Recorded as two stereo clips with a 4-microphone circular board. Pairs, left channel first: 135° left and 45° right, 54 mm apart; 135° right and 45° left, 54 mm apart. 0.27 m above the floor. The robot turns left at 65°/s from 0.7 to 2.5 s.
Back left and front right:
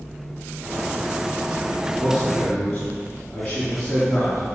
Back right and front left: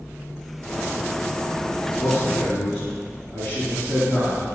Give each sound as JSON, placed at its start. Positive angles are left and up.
{"t": 2.0, "sound": "a man speaking", "azimuth_deg": -135, "distance_m": 3.0}